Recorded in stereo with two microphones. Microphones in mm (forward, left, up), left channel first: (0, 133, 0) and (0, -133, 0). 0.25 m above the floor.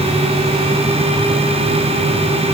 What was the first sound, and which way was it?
Only background noise.